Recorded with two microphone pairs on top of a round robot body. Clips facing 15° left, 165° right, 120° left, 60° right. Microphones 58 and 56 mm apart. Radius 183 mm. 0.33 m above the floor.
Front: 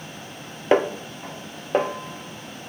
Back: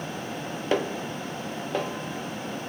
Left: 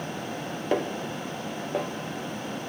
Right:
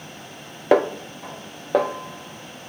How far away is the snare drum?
About 0.5 m.